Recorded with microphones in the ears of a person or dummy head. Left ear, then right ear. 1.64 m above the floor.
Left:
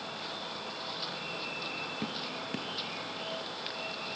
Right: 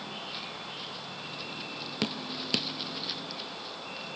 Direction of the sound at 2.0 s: 55° right (ahead or behind).